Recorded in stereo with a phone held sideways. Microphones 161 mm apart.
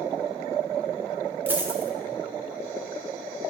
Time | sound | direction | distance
1.5 | a dropped coin | 10° right (ahead or behind) | 1.2 m